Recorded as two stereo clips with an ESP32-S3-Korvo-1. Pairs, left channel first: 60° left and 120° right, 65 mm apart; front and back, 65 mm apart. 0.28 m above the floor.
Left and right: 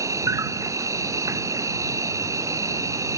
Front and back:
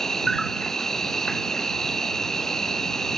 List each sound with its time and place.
0.0 s an insect: 85° right